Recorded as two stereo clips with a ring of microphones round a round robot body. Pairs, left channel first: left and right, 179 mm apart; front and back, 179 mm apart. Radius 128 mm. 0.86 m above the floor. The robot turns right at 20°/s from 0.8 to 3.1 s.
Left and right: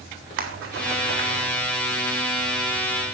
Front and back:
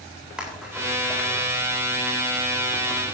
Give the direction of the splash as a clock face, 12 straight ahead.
3 o'clock.